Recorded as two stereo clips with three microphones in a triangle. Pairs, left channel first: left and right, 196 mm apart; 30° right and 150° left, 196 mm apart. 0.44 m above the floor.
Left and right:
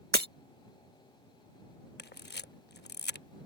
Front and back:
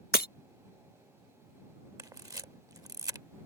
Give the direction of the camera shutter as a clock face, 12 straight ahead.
9 o'clock.